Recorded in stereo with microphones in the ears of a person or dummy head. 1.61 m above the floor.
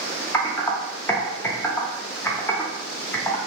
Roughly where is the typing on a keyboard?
Centre.